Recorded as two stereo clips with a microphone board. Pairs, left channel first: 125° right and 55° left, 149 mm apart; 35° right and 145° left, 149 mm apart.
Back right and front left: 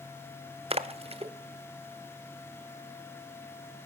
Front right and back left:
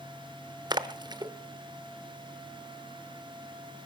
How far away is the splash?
About 0.7 m.